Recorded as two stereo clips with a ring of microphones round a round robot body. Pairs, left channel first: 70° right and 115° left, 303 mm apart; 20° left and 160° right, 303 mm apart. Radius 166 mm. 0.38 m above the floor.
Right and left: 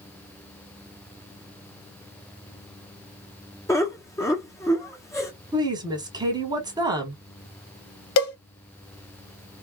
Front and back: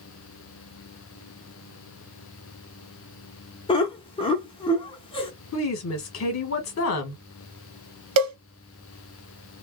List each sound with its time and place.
3.7 s laughter: 5° right, 1.0 m
5.5 s a woman speaking: 40° left, 1.1 m
8.2 s a cowbell: 110° right, 1.1 m